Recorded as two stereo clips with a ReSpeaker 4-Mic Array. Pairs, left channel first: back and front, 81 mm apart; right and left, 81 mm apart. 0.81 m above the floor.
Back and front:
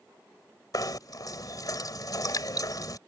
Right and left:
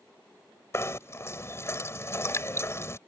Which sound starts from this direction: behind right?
Knocking, at 0.7 s.